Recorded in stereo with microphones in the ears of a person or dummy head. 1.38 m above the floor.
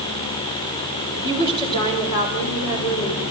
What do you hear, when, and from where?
1.1 s a woman speaking: 20° left (ahead or behind), 4.5 m; by 3.2 s 60° left (ahead or behind), 5 m